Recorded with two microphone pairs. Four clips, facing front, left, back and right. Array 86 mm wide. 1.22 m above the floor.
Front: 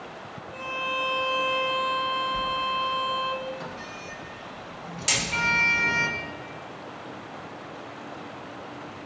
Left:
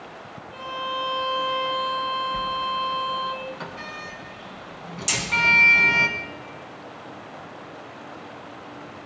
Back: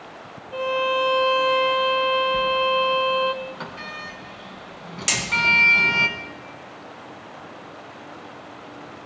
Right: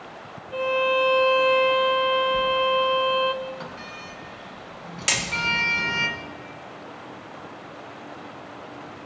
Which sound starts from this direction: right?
Hammering, at 5.1 s.